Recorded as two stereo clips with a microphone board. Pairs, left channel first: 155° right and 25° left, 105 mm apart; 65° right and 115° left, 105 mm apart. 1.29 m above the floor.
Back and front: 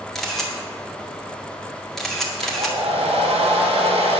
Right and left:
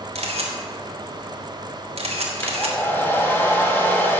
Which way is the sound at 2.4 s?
5° left.